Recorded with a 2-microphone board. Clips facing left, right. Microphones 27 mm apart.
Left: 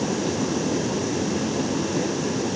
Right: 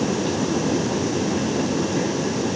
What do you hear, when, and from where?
Only background noise.